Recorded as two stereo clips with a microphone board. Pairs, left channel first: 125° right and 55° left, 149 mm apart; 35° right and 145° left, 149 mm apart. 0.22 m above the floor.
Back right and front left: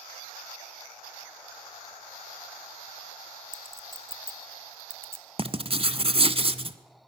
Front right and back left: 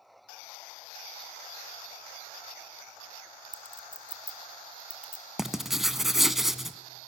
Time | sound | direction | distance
3.5 | a clink | 80° left | 0.7 m
5.4 | writing | 60° left | 0.7 m